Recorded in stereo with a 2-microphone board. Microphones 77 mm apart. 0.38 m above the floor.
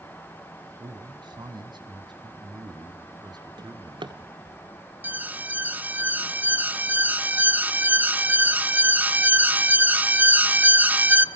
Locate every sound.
0.8 s a man speaking: 65° right (ahead or behind), 1.9 m; by 4.3 s 60° right (ahead or behind), 4.5 m
3.6 s a drawer: 80° right, 1.4 m
5.0 s an alarm: 20° right (ahead or behind), 0.8 m